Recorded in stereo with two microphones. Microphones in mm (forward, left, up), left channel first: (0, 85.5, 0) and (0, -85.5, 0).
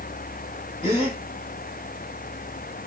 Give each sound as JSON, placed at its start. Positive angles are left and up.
{"t": 0.8, "sound": "a gasp", "side_deg": 35, "distance_m": 7.0}